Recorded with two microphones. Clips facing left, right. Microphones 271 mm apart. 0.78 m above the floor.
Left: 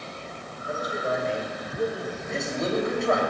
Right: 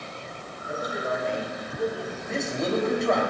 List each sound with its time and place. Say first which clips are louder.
0.7 s a man speaking: left 1 dB; 45° left (ahead or behind), 3 m; by 2.1 s 20° left (ahead or behind), 1.5 m
2.2 s a man speaking: right 1 dB; centre (ahead or behind), 3 m